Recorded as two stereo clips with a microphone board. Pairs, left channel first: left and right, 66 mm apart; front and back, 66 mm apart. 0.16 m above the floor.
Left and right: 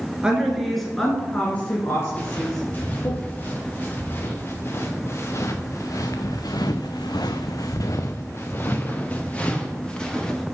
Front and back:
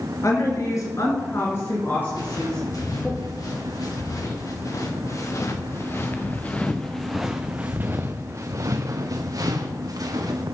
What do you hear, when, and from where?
0.2 s a woman speaking: 15° right, 2.5 m; by 3.1 s 80° left, 2.5 m
2.1 s footsteps: 25° left, 4 m; by 10.4 s 165° left, 2.5 m